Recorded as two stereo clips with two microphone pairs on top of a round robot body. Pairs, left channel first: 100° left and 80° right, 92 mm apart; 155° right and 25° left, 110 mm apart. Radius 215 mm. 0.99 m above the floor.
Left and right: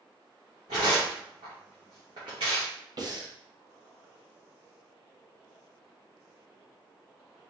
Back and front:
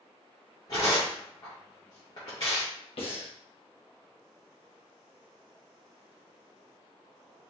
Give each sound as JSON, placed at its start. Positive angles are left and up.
{"t": 0.7, "sound": "tearing paper", "azimuth_deg": -110, "distance_m": 0.6}
{"t": 3.0, "sound": "breathing", "azimuth_deg": -125, "distance_m": 1.0}